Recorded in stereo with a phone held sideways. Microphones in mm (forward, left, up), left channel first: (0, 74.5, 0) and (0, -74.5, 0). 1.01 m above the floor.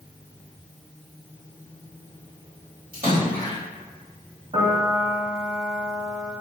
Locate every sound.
2.9 s a splash: 70° right (ahead or behind), 1.8 m
4.5 s a piano: 50° right (ahead or behind), 1.5 m